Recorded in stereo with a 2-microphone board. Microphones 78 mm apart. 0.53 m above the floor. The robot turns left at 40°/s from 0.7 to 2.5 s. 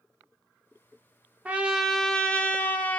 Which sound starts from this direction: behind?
A trumpet, at 1.4 s.